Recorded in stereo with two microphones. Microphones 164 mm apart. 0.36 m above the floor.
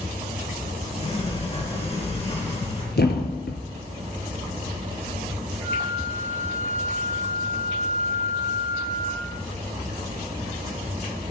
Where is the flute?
75° left (ahead or behind), 5.5 m.